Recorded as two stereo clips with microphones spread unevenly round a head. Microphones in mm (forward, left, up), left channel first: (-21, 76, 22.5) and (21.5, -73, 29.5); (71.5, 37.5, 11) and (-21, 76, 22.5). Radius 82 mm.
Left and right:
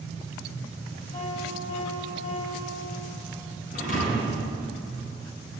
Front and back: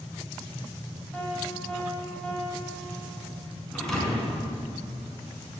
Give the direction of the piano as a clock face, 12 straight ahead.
10 o'clock.